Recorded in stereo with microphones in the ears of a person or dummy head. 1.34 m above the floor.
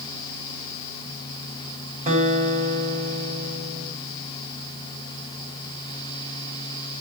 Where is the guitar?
40° right (ahead or behind), 7 m.